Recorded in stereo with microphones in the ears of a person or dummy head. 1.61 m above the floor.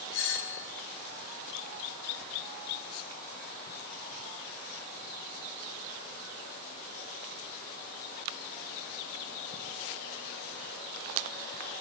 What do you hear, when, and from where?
0.1 s a doorbell: 65° left (ahead or behind), 0.9 m